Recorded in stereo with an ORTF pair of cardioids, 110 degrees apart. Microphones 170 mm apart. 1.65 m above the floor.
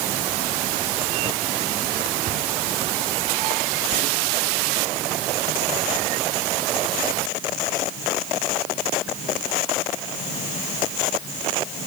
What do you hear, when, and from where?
Only background noise.